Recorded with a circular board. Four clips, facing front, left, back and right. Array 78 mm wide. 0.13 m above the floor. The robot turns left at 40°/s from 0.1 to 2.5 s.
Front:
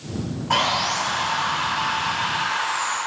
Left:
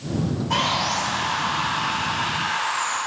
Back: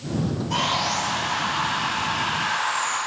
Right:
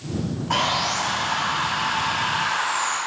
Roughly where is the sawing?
Ahead right.